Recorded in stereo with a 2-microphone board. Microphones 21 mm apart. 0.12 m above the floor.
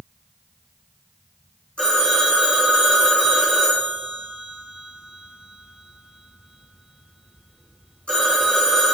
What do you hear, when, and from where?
1.8 s a phone ringing: 55° left (ahead or behind), 3.5 m